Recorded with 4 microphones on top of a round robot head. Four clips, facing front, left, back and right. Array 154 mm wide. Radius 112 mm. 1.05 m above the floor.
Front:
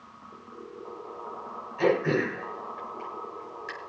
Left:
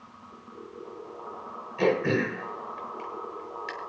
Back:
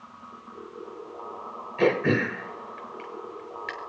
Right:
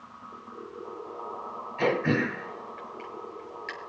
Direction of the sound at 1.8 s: 155° left.